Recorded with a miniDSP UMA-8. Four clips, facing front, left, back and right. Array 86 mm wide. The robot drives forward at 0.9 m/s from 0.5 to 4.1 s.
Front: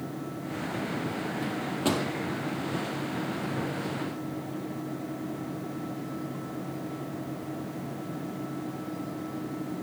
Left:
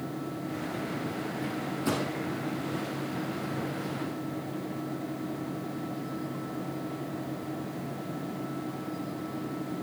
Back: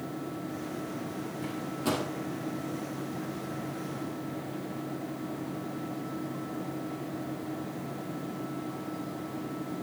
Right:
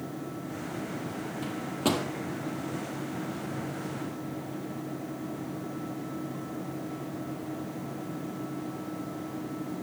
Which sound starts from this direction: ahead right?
A microwave, at 1.4 s.